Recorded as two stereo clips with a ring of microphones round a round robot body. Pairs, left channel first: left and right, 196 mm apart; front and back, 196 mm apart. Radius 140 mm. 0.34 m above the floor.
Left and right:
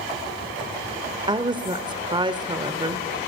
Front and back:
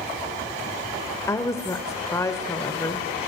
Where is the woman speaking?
60° right, 1.2 m.